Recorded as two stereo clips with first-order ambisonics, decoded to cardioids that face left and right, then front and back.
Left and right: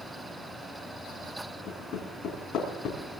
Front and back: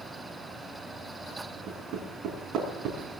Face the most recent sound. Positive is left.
turn(degrees=135)